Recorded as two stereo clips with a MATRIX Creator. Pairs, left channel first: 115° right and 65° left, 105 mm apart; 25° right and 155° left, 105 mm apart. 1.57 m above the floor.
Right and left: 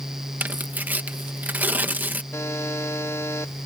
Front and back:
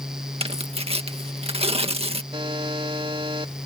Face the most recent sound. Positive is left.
turn(degrees=-175)